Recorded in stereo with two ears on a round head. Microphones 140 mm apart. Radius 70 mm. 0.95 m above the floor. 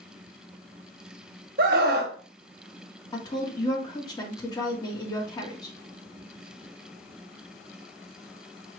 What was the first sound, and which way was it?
A scream, 60° right (ahead or behind).